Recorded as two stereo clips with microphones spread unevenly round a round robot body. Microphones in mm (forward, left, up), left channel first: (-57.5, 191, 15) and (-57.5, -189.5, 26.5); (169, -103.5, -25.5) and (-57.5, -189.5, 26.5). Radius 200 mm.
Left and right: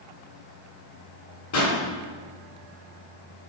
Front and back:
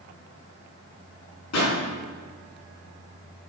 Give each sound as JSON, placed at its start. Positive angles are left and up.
{"t": 1.5, "sound": "a pop", "azimuth_deg": 35, "distance_m": 4.0}